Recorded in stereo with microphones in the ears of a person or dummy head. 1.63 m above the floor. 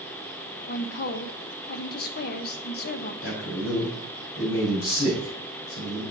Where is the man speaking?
75° left (ahead or behind), 4.5 m.